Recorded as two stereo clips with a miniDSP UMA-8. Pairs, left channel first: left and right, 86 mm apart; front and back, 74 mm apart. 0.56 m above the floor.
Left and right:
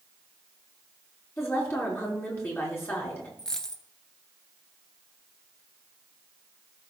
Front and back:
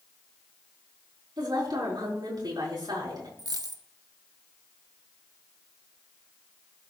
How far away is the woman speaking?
About 5 m.